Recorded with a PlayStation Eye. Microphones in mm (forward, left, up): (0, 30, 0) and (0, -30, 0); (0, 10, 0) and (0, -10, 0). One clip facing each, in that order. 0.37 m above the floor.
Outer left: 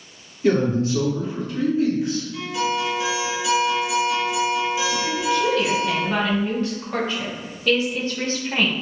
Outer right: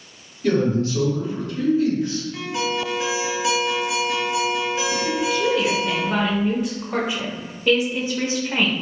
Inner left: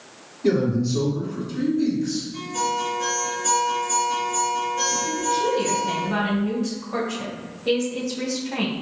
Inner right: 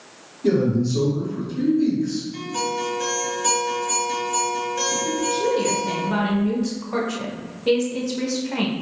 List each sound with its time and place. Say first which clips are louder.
0.4 s a man speaking: outer left 1 dB, inner right 1 dB; 15° left (ahead or behind), 1.6 m
2.3 s a guitar: outer left 1 dB, inner left 1 dB; 45° right (ahead or behind), 1.7 m
5.0 s a woman speaking: even, inner right 1 dB; 15° right (ahead or behind), 0.8 m